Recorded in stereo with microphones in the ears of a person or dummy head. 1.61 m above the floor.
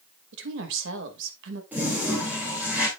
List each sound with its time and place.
0.3 s a woman speaking: 75° right (ahead or behind), 2.5 m
1.7 s a toilet flushing: 5° right (ahead or behind), 3 m